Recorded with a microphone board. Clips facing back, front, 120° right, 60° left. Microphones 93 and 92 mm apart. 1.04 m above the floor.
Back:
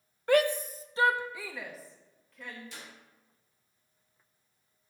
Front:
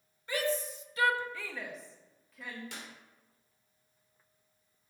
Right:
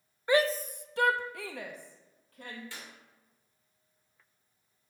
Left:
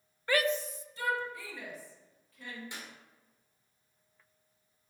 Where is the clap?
10° right, 3 m.